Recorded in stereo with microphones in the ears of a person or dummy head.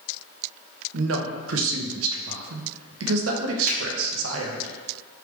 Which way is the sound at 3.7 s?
65° right (ahead or behind).